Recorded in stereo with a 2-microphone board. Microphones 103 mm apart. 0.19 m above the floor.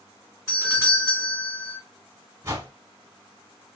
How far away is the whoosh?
About 1.2 m.